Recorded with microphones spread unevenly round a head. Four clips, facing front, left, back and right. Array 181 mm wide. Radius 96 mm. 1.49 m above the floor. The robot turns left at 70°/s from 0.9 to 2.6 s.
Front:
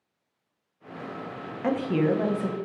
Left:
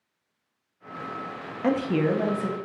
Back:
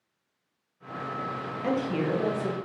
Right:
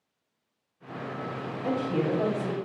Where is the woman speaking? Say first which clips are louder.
Left 4 dB, front 4 dB; 85° left, 0.8 m; by 2.5 s 25° left, 0.8 m.